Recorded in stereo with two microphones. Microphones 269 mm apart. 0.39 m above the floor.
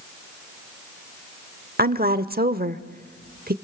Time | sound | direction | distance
1.8 | a woman speaking | 35° right (ahead or behind) | 0.9 m